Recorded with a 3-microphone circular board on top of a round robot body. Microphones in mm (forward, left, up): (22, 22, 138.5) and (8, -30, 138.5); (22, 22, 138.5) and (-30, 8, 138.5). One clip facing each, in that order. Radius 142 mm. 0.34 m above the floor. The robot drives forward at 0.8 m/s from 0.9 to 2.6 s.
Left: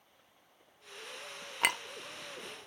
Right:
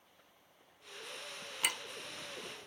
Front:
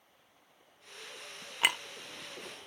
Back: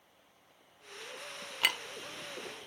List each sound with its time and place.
1.6 s a clink: 75° left, 0.6 m; by 1.8 s 100° left, 0.6 m